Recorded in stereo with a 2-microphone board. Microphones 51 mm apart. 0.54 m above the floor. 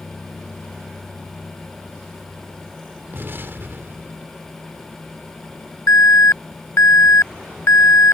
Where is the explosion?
50° right (ahead or behind).